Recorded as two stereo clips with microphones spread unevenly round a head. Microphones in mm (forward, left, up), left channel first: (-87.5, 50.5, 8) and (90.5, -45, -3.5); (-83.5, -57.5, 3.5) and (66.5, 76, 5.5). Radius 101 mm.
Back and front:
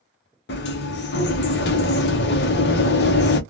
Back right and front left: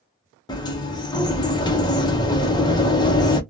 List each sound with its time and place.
0.5 s a sliding door: 160° left, 0.7 m